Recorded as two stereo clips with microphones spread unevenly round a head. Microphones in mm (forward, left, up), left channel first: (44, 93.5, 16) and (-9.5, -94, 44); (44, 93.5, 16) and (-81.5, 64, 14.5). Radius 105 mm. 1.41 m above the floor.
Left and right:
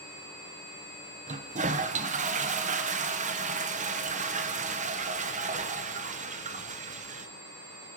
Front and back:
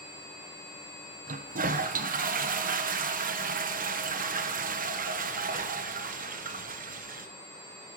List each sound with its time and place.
1.3 s a toilet flushing: 165° right, 1.1 m